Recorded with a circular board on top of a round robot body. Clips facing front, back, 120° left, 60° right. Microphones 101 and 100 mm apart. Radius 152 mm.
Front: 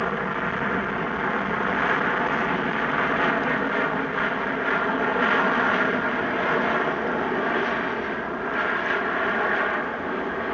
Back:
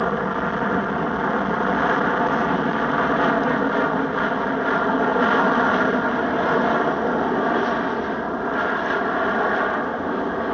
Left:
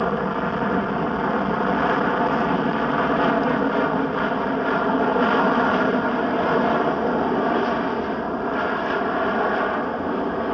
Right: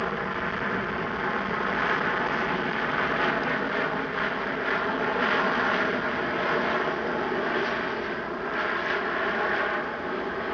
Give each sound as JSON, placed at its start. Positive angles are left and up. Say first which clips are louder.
{"t": 0.0, "sound": "an aircraft", "louder": "back 4 dB, left 7 dB", "azimuth_deg": 130}